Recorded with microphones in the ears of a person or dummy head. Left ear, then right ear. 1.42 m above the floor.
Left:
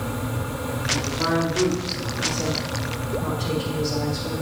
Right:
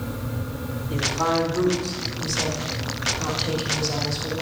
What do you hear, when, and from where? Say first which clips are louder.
0.9 s a woman speaking: right 2 dB; 85° right, 4.5 m; by 4.4 s 60° right (ahead or behind), 3 m